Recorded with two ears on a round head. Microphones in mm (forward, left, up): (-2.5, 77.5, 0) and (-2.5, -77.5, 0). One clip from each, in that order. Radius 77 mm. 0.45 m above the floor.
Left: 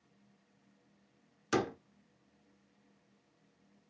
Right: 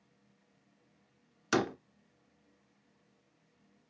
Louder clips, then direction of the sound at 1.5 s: Right 2 dB; 25° right (ahead or behind).